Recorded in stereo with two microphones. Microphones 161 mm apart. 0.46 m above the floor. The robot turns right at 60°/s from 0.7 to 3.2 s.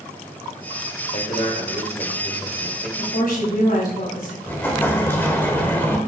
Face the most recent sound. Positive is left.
turn(degrees=10)  # may be behind; listen again after turning